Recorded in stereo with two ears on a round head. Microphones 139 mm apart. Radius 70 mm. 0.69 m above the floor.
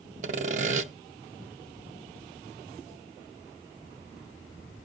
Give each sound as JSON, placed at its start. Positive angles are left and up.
{"t": 0.2, "sound": "sawing", "side_deg": -50, "distance_m": 0.6}